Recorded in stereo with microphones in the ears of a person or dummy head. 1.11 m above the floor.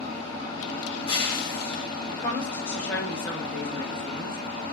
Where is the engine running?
30° left (ahead or behind), 1.4 m.